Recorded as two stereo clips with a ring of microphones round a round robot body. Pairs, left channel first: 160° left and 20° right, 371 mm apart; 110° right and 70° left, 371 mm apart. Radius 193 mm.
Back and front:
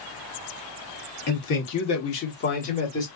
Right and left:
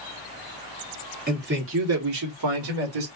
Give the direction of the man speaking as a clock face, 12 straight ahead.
8 o'clock.